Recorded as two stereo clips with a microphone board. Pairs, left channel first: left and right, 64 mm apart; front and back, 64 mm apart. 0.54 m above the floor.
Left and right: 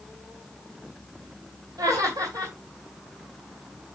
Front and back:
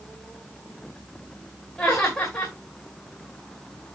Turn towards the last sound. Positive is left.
turn(degrees=-75)